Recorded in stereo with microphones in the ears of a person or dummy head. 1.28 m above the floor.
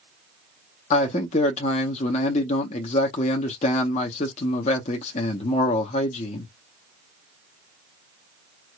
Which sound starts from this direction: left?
A man speaking, at 0.9 s.